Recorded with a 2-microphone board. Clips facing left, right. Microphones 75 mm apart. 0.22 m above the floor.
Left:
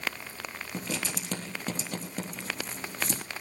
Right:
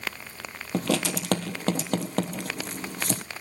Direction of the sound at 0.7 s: 70° right (ahead or behind).